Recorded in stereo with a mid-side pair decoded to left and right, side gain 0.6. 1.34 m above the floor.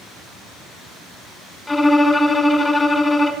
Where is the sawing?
I don't hear sawing.